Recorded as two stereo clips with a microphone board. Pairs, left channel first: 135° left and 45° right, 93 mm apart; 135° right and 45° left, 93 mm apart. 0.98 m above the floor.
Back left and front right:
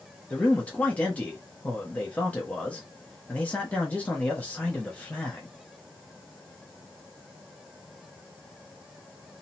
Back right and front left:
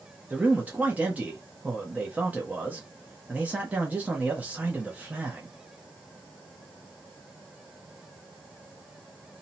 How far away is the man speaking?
About 0.7 m.